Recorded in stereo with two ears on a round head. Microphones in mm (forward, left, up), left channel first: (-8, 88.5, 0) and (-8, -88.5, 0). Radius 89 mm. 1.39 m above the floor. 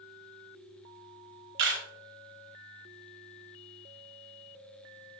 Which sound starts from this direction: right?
A camera shutter, at 1.6 s.